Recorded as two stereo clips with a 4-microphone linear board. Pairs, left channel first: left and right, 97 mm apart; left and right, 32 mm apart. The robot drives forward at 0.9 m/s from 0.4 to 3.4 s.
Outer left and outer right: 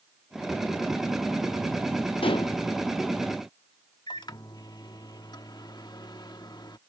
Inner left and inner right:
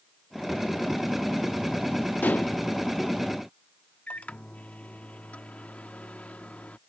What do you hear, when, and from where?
2.2 s dishes clattering: 65° left (ahead or behind); by 2.6 s 45° left (ahead or behind)
4.1 s a microwave: 45° left (ahead or behind)